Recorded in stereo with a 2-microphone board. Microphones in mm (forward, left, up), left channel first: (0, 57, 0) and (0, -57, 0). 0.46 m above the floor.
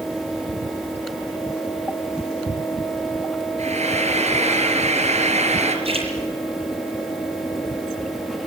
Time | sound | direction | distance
3.6 | frying | 85° right | 3.5 m
5.8 | a splash | 60° right (ahead or behind) | 8 m